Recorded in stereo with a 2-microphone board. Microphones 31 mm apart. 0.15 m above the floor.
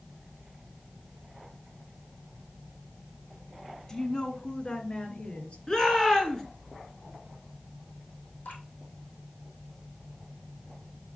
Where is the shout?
25° left (ahead or behind), 2.5 m.